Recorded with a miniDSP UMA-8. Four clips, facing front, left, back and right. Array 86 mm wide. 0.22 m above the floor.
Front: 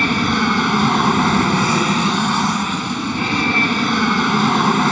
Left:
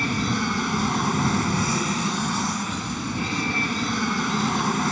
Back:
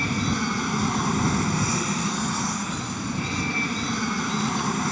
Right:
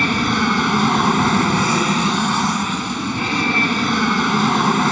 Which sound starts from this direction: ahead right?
An aircraft, at 0.0 s.